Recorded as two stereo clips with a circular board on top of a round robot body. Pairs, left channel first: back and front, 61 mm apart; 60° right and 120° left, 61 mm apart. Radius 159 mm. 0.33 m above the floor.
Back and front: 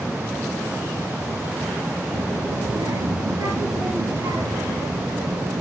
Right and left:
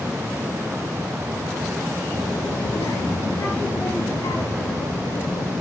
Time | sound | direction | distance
2.1 | a child speaking | 20° right | 8.5 m